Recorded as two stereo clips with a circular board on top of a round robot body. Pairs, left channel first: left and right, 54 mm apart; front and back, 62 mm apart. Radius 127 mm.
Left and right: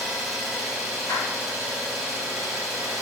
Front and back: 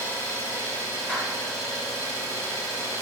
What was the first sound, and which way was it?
An engine running, 5° right.